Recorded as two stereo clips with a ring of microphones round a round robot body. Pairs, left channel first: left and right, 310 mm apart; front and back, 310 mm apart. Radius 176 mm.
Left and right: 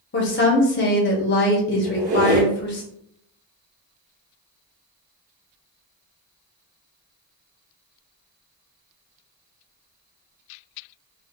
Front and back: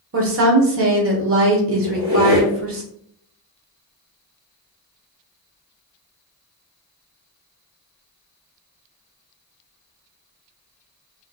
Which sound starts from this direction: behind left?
A woman speaking, at 0.1 s.